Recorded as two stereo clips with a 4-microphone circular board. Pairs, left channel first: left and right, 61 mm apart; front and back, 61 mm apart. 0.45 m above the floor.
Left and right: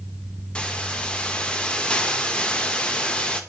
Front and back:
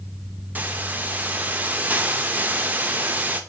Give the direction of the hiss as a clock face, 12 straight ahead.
7 o'clock.